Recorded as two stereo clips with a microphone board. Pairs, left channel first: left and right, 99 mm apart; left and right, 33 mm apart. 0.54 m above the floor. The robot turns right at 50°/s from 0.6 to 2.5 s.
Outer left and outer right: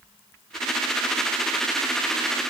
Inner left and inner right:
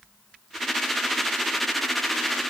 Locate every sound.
Only background noise.